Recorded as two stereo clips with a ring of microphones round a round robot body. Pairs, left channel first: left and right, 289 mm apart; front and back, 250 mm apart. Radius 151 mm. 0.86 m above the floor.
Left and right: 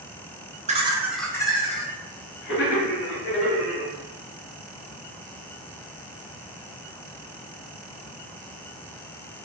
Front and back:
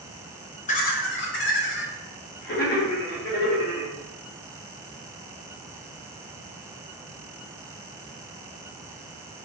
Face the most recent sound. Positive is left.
turn(degrees=50)